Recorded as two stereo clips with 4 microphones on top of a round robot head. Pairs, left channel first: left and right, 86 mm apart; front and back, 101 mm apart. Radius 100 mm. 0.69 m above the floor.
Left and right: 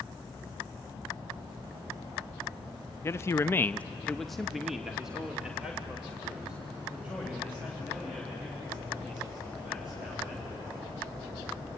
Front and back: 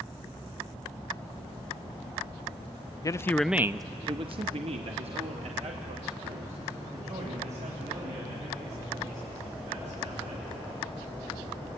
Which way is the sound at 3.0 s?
40° left.